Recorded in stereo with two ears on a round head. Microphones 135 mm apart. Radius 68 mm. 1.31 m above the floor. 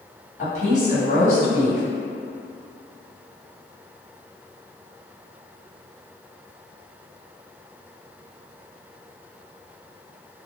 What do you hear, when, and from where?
0.4 s a woman speaking: 50° left (ahead or behind), 1.2 m